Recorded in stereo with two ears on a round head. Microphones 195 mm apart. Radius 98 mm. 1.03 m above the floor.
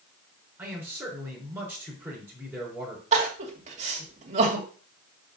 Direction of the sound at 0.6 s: 5° right (ahead or behind).